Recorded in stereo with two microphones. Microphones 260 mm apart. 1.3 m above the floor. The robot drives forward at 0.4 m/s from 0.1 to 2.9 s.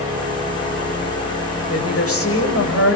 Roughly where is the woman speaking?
Left.